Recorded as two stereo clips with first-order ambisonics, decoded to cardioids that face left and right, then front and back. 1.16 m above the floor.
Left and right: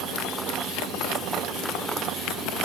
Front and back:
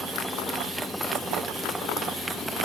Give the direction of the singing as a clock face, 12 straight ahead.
No singing in this recording.